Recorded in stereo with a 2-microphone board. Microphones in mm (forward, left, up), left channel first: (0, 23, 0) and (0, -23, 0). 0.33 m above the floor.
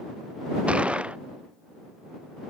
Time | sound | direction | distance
0.7 | a gunshot | 30° right (ahead or behind) | ?